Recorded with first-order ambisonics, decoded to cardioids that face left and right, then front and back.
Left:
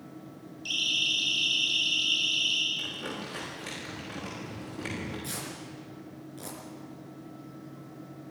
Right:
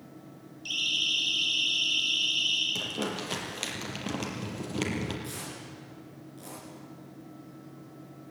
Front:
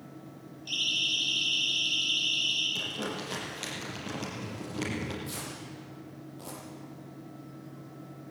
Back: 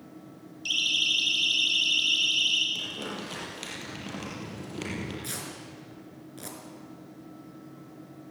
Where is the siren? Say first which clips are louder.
Left 1 dB, back 3 dB; 175° left, 5 m; by 2.6 s straight behind, 6 m.